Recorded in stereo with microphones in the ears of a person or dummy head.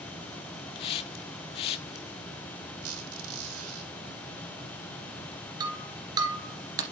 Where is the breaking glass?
25° right (ahead or behind), 2 m.